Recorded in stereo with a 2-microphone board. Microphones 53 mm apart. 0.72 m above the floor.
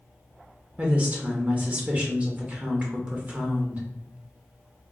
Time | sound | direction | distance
0.8 | a woman speaking | 30° right (ahead or behind) | 0.7 m